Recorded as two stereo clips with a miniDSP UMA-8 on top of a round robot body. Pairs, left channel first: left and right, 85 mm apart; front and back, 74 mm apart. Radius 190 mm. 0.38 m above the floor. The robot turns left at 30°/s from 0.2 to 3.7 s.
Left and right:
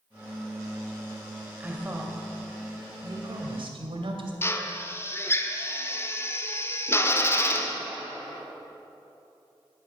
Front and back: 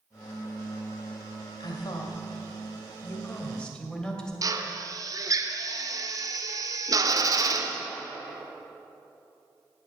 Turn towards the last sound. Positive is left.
turn(degrees=150)